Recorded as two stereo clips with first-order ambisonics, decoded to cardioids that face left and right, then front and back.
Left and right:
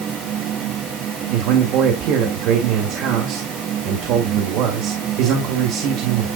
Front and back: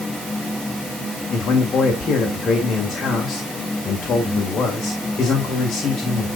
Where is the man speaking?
65° right, 2.0 m.